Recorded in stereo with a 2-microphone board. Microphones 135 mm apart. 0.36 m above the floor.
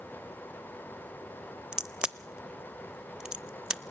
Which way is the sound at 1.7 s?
5° right (ahead or behind).